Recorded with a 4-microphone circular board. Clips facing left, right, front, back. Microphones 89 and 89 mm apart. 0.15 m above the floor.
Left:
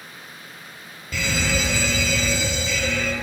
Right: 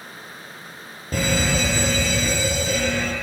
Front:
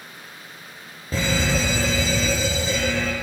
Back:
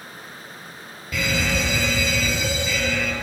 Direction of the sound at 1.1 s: 50° right.